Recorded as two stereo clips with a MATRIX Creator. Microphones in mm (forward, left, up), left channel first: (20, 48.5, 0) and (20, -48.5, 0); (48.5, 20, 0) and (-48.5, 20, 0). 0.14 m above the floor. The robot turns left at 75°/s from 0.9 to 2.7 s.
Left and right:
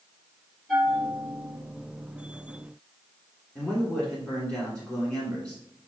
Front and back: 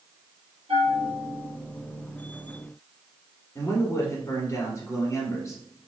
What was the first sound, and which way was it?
A bell, 170° left.